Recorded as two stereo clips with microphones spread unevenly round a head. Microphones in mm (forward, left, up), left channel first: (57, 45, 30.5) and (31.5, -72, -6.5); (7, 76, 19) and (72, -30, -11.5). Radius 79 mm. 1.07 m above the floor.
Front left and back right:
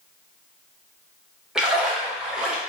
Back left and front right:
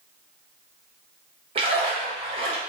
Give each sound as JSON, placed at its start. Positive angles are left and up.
{"t": 1.6, "sound": "a splash", "azimuth_deg": -25, "distance_m": 1.0}